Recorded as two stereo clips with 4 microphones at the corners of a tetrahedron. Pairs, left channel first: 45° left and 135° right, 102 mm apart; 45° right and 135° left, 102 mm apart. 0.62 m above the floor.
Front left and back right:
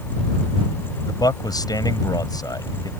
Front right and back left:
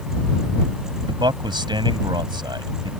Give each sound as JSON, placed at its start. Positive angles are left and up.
{"t": 1.1, "sound": "a man speaking", "azimuth_deg": 95}